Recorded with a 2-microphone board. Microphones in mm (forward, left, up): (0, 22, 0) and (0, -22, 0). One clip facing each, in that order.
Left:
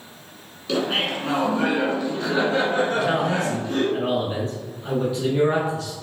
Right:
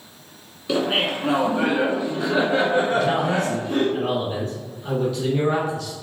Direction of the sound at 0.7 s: 15° right (ahead or behind).